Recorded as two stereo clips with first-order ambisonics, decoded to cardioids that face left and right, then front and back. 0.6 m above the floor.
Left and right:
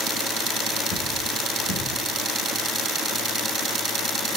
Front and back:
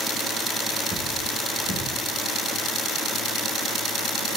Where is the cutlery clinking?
115° left, 1.9 m.